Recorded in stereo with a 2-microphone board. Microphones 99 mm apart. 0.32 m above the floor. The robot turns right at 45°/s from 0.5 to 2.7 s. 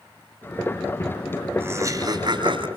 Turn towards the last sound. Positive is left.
turn(degrees=-105)